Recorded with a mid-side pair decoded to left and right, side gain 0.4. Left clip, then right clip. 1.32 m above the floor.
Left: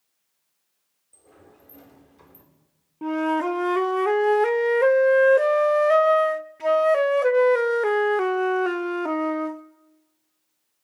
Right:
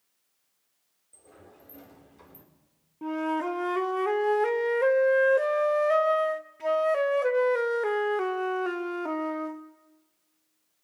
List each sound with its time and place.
1.1 s a sliding door: 5° left, 4 m
3.0 s a flute: 40° left, 0.7 m